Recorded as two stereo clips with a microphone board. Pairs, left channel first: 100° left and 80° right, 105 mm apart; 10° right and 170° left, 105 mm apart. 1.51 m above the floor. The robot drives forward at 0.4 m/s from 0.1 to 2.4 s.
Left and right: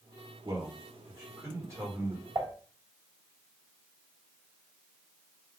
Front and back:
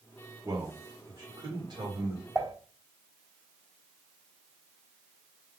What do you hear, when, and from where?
0.5 s a man speaking: 130° right, 1.4 m; by 2.2 s 145° right, 1.9 m
2.4 s dishes clattering: 130° right, 2.5 m